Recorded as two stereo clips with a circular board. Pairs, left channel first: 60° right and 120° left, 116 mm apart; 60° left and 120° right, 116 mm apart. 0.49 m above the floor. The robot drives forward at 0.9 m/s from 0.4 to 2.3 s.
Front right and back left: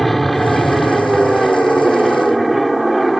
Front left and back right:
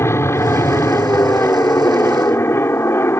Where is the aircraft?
25° left; by 3.2 s 30° left.